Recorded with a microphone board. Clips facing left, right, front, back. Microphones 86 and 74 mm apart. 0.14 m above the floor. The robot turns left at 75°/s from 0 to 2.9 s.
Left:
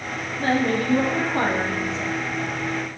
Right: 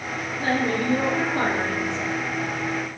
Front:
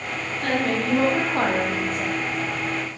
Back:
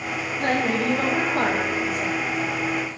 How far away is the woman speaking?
About 3.5 m.